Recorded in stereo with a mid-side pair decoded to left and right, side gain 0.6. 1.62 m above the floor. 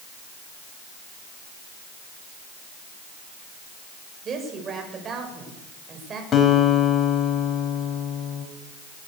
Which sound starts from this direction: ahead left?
A guitar, at 6.3 s.